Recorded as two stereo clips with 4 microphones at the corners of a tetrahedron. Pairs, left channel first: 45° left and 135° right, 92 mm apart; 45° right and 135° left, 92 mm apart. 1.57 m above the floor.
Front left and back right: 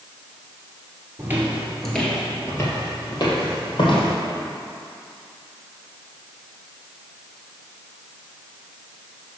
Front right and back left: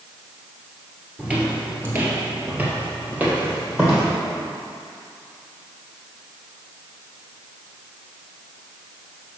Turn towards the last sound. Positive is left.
turn(degrees=65)